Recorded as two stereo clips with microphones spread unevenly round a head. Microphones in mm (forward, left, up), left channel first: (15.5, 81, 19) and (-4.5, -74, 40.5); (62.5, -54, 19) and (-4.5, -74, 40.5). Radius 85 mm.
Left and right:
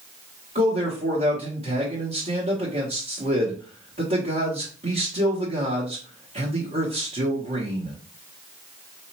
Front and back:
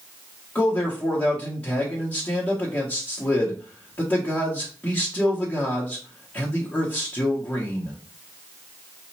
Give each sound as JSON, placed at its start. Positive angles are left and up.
{"t": 0.6, "sound": "a man speaking", "azimuth_deg": -50, "distance_m": 1.6}